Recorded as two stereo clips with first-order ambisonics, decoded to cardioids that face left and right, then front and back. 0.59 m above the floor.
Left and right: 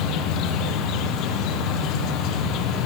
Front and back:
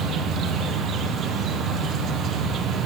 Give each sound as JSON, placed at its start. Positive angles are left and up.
{"t": 0.0, "sound": "an insect", "azimuth_deg": 125, "distance_m": 2.5}